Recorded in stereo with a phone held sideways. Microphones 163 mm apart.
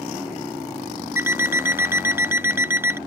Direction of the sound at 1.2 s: 15° right (ahead or behind).